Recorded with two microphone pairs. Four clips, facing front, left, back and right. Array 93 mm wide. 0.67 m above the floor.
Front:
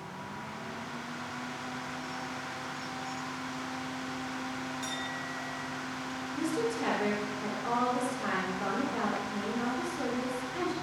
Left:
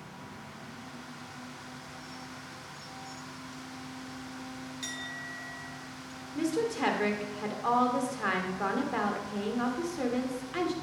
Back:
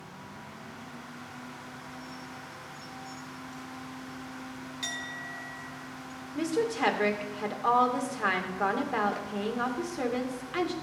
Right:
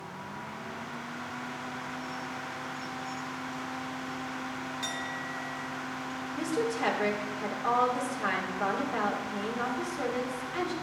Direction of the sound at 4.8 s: 175° left.